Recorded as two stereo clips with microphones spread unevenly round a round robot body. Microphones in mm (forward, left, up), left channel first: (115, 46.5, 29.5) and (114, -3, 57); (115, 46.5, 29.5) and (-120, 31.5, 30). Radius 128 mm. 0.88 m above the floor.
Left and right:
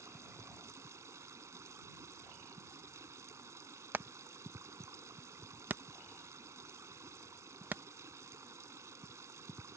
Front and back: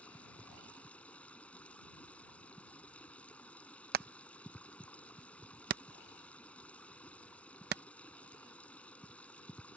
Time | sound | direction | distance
0.0 | running water | 80° right | ?
3.9 | hammering | 170° right | ?